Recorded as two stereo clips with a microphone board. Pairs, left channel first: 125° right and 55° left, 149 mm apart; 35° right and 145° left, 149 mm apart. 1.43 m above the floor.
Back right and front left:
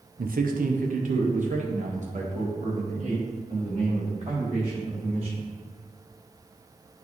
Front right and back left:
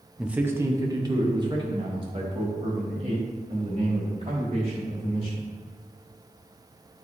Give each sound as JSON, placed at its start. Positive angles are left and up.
{"t": 0.2, "sound": "a man speaking", "azimuth_deg": 60, "distance_m": 0.6}